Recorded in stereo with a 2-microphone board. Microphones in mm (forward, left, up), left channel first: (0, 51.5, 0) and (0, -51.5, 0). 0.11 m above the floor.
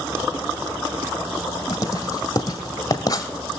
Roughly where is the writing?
Left.